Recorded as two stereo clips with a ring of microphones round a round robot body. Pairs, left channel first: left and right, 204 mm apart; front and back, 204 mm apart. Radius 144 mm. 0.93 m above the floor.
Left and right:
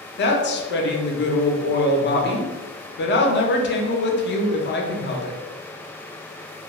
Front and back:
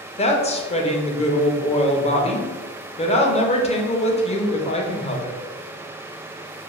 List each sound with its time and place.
0.2 s a woman speaking: 60° left, 0.6 m